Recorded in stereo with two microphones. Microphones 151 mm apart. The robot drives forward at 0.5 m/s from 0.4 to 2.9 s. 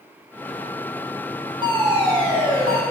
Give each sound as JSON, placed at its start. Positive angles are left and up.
{"t": 1.6, "sound": "a fire alarm", "side_deg": -35, "distance_m": 8.0}